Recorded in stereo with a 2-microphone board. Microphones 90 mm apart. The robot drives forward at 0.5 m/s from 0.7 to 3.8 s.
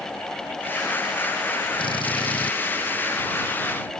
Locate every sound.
1.8 s a drill: 75° left (ahead or behind)